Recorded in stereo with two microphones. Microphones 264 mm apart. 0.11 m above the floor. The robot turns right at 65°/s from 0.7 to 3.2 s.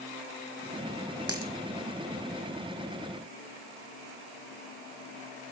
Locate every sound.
1.3 s a dropped coin: 65° right (ahead or behind), 2.5 m; by 1.5 s 50° right (ahead or behind), 2.5 m